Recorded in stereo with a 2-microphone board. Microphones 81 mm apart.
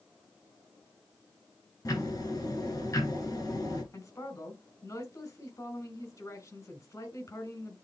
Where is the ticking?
50° left (ahead or behind), 5.5 m.